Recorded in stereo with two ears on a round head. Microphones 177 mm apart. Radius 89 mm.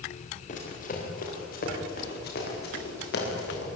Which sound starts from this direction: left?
Running footsteps, at 0.5 s.